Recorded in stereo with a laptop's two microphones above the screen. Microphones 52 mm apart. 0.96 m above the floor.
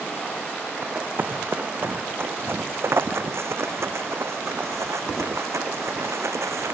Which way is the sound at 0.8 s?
40° right (ahead or behind).